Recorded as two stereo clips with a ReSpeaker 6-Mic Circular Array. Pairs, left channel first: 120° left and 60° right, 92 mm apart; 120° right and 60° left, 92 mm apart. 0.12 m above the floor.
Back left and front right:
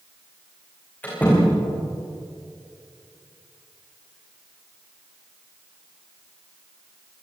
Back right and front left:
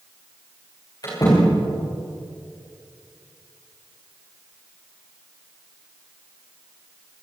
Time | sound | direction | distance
1.0 | a door slam | 165° right | 9 m